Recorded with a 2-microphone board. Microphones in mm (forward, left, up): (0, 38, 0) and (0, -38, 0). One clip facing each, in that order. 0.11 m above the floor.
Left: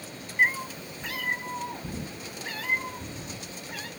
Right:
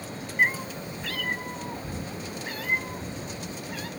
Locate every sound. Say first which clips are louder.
0.4 s a cat meowing: even; centre (ahead or behind), 0.6 m; by 3.9 s 25° left (ahead or behind), 3 m